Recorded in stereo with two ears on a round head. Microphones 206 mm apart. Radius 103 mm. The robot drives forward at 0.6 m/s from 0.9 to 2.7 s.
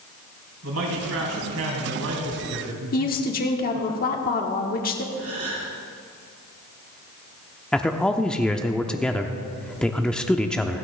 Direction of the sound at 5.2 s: 35° right (ahead or behind).